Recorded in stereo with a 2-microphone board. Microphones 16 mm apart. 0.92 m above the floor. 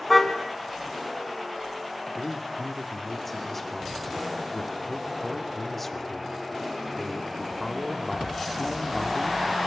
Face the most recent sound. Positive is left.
turn(degrees=15)  # may be behind; listen again after turning